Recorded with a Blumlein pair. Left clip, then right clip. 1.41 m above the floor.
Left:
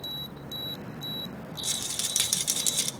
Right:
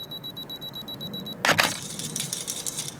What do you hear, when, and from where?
1.6 s a rattle: 15° left, 0.6 m